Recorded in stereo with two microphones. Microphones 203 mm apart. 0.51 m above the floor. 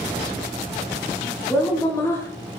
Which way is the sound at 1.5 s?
10° left (ahead or behind).